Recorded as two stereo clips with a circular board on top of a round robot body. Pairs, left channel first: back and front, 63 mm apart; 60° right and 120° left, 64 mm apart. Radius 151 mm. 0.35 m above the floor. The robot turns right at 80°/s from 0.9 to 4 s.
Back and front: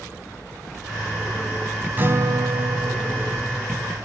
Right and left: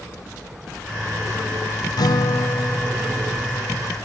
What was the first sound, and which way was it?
A guitar, 60° right.